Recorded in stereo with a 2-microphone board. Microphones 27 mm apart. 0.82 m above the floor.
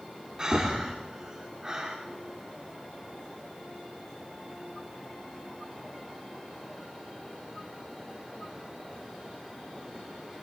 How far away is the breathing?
About 2.5 m.